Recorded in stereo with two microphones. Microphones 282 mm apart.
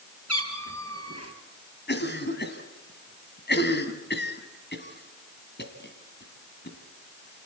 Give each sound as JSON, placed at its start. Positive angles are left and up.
{"t": 0.3, "sound": "a cat meowing", "side_deg": -60, "distance_m": 2.5}
{"t": 1.9, "sound": "a cough", "side_deg": 40, "distance_m": 2.5}